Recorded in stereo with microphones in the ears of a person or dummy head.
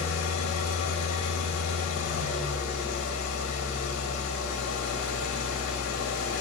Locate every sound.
0.0 s an engine running: 70° left (ahead or behind), 2 m